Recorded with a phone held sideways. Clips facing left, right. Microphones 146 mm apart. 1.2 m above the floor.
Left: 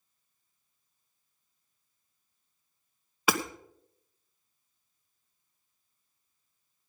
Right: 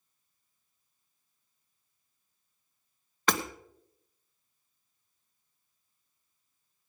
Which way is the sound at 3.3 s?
10° left (ahead or behind).